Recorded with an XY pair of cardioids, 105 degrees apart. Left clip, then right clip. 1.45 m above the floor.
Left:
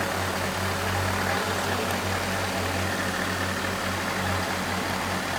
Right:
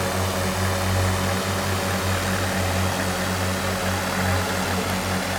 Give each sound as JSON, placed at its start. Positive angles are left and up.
{"t": 0.0, "sound": "a drone", "azimuth_deg": -45}